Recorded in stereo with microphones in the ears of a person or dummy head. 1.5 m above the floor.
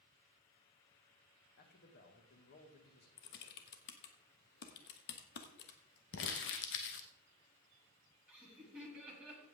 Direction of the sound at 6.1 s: 60° left (ahead or behind).